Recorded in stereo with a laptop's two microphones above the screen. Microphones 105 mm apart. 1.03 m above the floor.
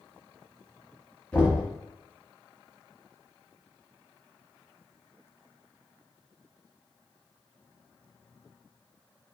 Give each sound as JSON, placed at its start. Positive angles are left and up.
{"t": 1.3, "sound": "knocking", "side_deg": 10, "distance_m": 0.9}